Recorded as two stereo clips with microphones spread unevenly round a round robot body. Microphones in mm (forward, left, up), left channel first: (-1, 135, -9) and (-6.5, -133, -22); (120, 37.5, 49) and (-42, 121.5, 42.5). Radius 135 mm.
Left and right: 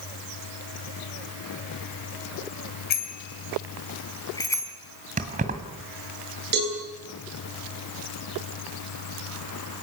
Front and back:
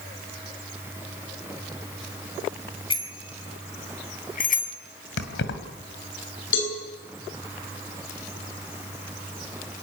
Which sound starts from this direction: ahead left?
A bicycle bell, at 2.9 s.